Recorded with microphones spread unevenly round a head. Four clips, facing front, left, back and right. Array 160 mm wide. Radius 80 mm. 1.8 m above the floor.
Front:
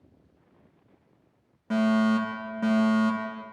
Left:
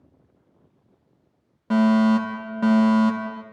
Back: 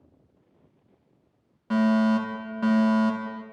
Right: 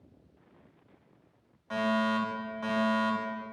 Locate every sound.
1.7 s a fire alarm: 80° left, 5 m